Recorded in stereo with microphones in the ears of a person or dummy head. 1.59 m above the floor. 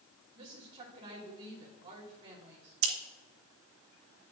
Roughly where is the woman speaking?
Right.